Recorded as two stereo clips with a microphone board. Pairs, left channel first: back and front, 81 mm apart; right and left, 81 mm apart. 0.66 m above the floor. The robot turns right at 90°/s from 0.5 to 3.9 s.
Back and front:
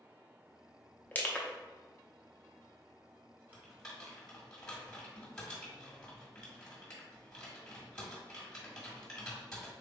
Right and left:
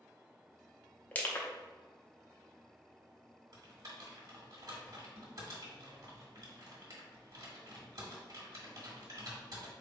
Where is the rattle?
I don't hear a rattle.